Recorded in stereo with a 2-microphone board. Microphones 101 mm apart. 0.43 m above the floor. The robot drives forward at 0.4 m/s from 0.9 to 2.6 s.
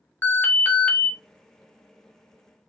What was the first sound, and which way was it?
An alarm, 15° left (ahead or behind).